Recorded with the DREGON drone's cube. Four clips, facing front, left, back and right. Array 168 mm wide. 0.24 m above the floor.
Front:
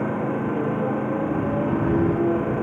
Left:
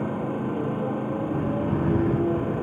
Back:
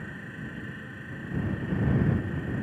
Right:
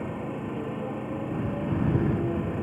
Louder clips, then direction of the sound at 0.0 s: Left 5 dB, front 17 dB; 15° left.